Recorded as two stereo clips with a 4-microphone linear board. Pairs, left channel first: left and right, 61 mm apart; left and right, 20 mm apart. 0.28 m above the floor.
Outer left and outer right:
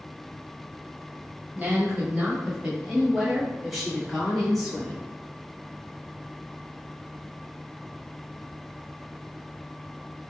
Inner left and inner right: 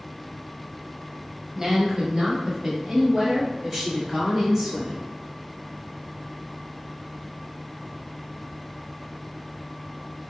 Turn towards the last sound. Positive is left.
turn(degrees=5)  # may be behind; listen again after turning